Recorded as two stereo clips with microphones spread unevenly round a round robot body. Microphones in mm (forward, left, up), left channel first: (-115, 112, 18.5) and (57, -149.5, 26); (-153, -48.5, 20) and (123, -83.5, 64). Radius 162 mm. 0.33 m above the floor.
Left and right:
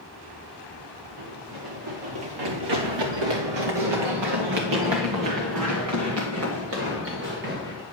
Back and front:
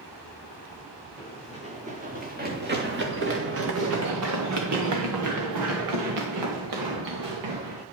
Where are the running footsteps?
80° right, 2.5 m; by 7.8 s 5° left, 3 m.